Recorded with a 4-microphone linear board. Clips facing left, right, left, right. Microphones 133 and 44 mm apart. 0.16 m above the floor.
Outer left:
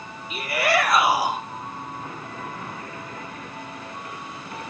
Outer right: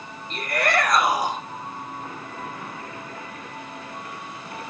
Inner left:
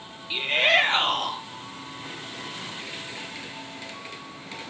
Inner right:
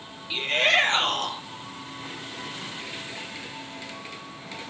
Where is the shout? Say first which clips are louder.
Outer left 1 dB, inner left 1 dB; 5° left (ahead or behind), 4 m.